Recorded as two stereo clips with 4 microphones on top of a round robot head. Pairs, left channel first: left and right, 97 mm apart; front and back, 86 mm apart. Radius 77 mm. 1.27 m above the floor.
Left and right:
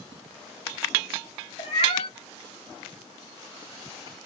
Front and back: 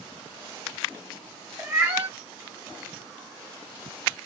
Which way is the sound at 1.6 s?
115° left.